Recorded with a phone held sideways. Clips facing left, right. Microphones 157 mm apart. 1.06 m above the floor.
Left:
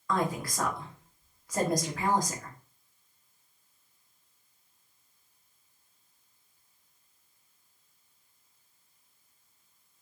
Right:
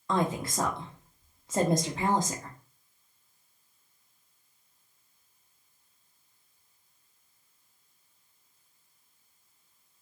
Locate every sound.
0.1 s a woman speaking: 25° right (ahead or behind), 0.6 m